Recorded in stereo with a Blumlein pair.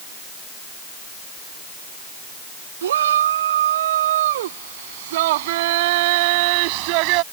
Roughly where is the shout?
Ahead right.